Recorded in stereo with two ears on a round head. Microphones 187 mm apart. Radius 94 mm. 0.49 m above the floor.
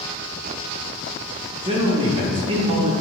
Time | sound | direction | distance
1.6 | a man speaking | 25° right (ahead or behind) | 0.9 m